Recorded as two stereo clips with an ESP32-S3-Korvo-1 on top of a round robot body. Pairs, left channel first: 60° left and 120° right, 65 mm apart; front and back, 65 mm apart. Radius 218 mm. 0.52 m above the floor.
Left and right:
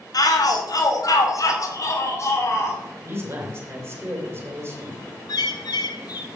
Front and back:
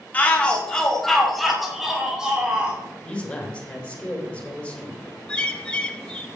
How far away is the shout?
About 2 m.